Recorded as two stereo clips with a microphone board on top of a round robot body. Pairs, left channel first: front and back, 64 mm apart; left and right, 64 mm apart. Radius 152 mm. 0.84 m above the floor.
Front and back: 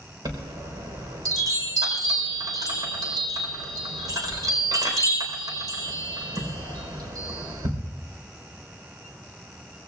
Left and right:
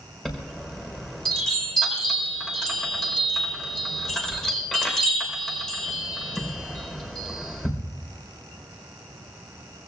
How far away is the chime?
About 4 m.